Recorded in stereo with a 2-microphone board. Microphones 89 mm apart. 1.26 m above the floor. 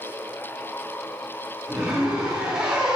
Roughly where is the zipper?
Centre.